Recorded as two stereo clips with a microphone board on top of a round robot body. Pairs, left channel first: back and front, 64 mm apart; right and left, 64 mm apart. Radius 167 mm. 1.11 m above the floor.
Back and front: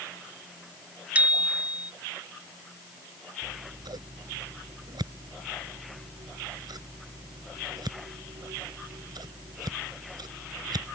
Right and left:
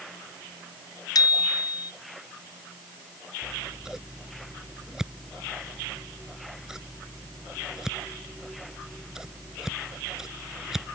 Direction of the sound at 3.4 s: 10° left.